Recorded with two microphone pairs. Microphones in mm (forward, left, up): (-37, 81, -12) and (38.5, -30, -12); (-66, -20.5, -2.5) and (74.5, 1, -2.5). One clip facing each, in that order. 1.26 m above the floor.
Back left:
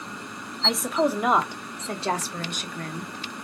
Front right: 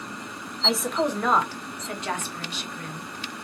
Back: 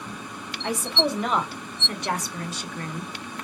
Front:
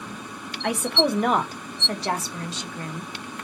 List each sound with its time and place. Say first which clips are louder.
0.6 s a woman speaking: back left 1 dB, front 3 dB; 30° left, 1.2 m; by 3.1 s 85° left, 1.6 m